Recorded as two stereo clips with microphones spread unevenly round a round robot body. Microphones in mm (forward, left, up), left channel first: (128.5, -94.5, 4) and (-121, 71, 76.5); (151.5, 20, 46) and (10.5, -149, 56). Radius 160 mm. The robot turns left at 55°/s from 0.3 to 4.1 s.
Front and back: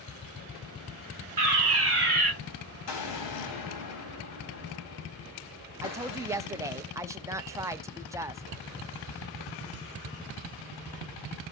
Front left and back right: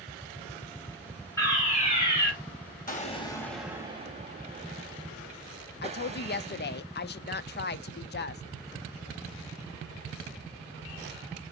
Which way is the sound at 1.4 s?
125° left.